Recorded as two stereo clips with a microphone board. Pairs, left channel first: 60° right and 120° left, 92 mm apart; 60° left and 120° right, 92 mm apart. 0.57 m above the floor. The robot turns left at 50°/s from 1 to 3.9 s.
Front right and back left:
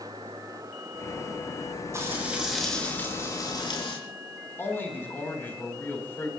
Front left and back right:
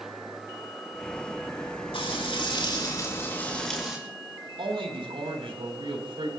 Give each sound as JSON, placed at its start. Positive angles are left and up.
{"t": 1.9, "sound": "frying", "azimuth_deg": 65, "distance_m": 5.0}
{"t": 4.6, "sound": "a man speaking", "azimuth_deg": -125, "distance_m": 4.0}